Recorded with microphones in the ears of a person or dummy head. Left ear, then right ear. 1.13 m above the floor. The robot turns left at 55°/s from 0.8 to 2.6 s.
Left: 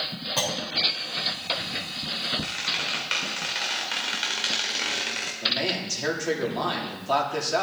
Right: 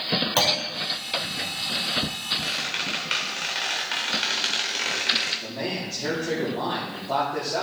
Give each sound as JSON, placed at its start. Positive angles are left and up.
{"t": 0.4, "sound": "a clunk", "side_deg": -25, "distance_m": 2.5}
{"t": 2.4, "sound": "a squeak", "side_deg": -5, "distance_m": 1.9}
{"t": 5.4, "sound": "a man speaking", "side_deg": 70, "distance_m": 3.0}